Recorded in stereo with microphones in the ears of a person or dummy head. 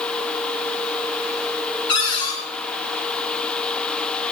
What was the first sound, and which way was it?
A cupboard door, 30° left (ahead or behind).